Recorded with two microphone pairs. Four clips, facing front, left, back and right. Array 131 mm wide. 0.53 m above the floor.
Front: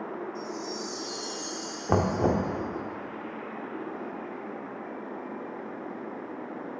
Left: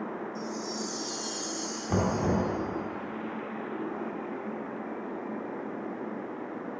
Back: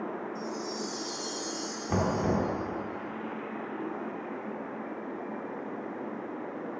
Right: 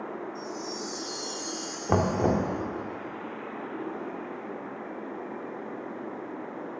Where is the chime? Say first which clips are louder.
Left 1 dB, even; 60° left, 1.3 m.